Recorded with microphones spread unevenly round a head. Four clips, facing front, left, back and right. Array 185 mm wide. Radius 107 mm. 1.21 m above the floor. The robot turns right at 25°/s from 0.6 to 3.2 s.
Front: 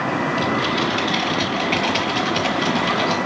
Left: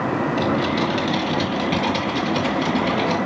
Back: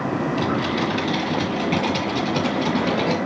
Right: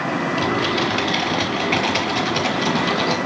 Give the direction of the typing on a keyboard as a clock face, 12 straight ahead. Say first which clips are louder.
Right 1 dB, front 1 dB; 8 o'clock.